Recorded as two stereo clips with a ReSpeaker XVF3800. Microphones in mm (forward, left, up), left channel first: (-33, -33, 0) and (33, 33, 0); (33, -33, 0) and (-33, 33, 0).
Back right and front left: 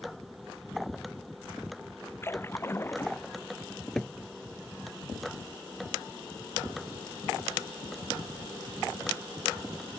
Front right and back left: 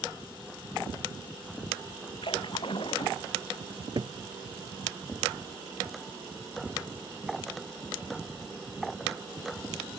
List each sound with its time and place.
2.2 s a splash: 70° right
3.7 s a cupboard door: 140° left